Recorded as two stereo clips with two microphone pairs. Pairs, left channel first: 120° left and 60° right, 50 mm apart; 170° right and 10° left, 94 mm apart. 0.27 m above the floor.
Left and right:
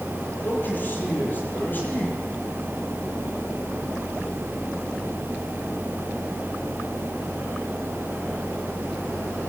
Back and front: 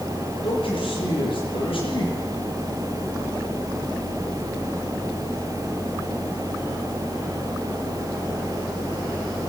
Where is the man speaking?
170° left, 8 m.